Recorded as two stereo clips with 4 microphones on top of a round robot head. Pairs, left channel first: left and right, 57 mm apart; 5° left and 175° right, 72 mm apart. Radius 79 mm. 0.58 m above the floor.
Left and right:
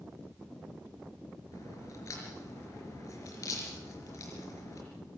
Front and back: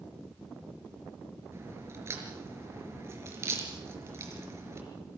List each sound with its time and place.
1.5 s a crack: 135° left, 5 m